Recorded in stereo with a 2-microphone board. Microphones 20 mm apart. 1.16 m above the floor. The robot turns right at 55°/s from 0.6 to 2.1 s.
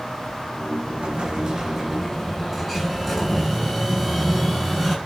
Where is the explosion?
70° right, 5.5 m; by 5.0 s 5° right, 5.5 m.